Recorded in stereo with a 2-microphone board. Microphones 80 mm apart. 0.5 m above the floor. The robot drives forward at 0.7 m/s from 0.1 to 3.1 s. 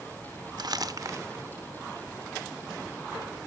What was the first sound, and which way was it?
Crumpling, 55° right (ahead or behind).